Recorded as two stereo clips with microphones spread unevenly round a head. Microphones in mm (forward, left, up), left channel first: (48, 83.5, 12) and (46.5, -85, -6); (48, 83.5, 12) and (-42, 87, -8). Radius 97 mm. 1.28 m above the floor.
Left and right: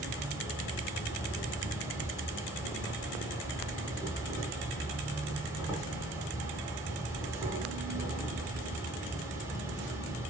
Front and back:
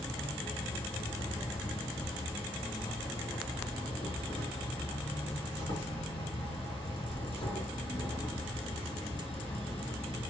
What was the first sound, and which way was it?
An insect, 30° right.